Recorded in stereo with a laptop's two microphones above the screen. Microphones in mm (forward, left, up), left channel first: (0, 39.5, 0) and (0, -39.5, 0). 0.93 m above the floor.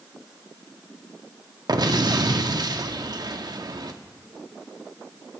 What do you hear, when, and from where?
1.7 s an explosion: 55° right (ahead or behind), 0.7 m